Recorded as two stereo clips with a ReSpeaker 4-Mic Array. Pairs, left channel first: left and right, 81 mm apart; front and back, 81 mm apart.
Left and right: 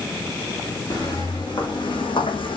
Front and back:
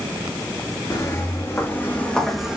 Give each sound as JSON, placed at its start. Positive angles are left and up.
{"t": 0.9, "sound": "footsteps", "azimuth_deg": 50, "distance_m": 2.0}